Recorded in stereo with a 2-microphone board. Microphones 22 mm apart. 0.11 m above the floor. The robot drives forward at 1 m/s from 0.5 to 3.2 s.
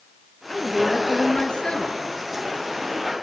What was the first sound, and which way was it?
A woman speaking, 40° left (ahead or behind).